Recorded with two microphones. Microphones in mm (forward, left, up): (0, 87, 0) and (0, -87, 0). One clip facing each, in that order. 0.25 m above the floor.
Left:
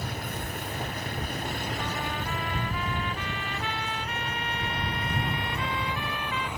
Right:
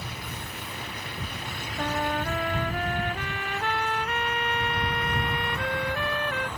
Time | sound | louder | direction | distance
0.0 | a vehicle | left 4 dB | 50° left (ahead or behind) | ?
1.8 | a trumpet | right 4 dB | 55° right (ahead or behind) | ?